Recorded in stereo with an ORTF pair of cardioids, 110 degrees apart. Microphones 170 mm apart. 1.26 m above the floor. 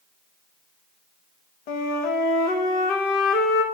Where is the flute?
65° left, 1.0 m.